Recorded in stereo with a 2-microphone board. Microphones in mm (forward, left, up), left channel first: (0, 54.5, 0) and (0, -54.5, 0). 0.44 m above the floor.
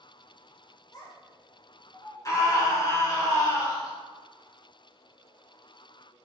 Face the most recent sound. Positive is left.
turn(degrees=35)  # may be behind; listen again after turning